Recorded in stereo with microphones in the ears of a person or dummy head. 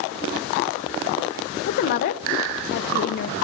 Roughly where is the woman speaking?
Left.